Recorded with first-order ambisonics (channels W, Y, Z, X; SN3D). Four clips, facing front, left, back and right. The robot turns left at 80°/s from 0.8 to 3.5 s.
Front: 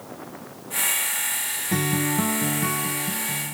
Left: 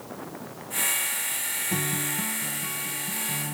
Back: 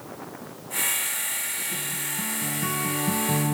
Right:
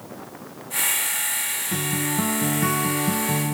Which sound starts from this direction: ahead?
A guitar, at 1.7 s.